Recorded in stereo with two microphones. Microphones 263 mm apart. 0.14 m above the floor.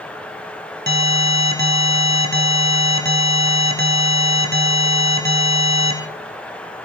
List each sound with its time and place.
0.9 s an alarm: 40° right (ahead or behind), 2.5 m